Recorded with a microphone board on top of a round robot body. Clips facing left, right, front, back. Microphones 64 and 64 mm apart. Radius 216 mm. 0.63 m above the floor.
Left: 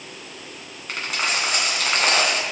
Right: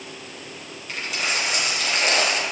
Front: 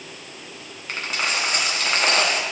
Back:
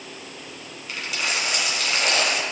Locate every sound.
0.9 s a dropped coin: 50° left, 1.6 m